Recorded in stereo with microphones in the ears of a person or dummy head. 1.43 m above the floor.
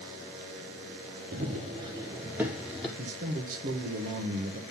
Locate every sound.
1.3 s running footsteps: 40° right (ahead or behind), 2.0 m; by 2.9 s centre (ahead or behind), 2 m
3.0 s a man speaking: 45° right (ahead or behind), 1.4 m